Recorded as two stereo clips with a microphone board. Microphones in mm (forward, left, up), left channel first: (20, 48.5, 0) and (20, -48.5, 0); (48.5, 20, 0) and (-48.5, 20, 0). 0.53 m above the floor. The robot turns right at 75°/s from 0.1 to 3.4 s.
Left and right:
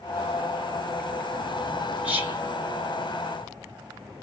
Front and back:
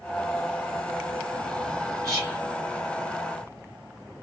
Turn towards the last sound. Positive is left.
turn(degrees=-50)